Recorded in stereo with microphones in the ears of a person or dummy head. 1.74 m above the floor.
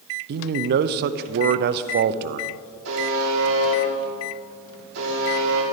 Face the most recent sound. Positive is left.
turn(degrees=-70)  # may be behind; listen again after turning